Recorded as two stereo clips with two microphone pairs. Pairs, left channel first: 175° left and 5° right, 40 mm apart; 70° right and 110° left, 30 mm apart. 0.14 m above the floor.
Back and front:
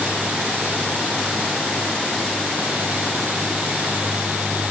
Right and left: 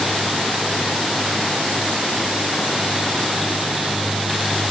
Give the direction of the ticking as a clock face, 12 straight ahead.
No ticking in this recording.